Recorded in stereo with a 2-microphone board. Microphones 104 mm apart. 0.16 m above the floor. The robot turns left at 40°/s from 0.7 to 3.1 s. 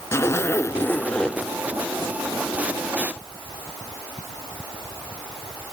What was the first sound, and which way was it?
A zipper, 30° left.